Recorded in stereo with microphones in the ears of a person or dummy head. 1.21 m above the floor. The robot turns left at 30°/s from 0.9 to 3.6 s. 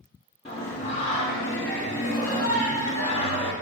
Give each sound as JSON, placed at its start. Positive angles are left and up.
{"t": 0.5, "sound": "singing", "azimuth_deg": 120, "distance_m": 0.8}